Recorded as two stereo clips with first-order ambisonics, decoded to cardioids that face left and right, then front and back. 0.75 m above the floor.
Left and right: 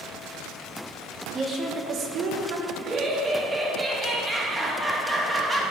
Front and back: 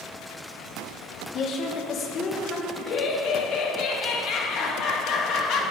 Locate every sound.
1.3 s a woman speaking: 20° right, 1.0 m; by 2.7 s 65° right, 1.7 m
2.8 s laughter: 20° right, 1.4 m